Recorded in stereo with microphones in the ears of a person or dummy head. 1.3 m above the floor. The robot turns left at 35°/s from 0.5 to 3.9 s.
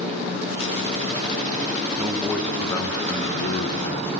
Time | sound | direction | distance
2.0 | a man speaking | 170° right | 0.8 m